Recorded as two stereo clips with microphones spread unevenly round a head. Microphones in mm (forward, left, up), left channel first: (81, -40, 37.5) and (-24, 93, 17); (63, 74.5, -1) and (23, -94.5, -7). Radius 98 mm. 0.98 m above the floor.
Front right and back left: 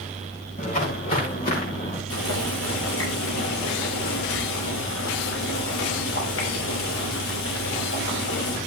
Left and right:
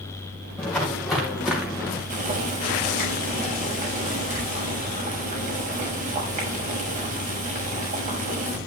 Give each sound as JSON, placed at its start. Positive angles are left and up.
{"t": 0.6, "sound": "footsteps", "azimuth_deg": -10, "distance_m": 8.5}
{"t": 2.1, "sound": "boiling", "azimuth_deg": -60, "distance_m": 6.5}